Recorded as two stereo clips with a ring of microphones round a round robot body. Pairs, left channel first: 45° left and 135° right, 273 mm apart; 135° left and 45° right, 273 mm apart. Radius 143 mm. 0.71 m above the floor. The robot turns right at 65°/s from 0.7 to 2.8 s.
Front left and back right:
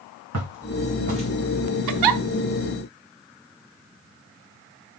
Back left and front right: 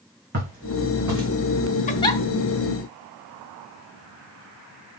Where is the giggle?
160° right, 0.7 m; by 2.2 s 140° right, 0.7 m.